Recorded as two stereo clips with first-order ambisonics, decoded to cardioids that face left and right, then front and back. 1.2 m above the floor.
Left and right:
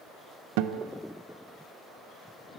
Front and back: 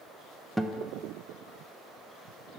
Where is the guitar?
95° right, 0.6 m.